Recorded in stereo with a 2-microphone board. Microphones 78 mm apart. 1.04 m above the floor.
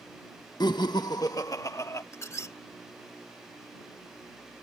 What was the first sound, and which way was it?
Laughter, 60° left (ahead or behind).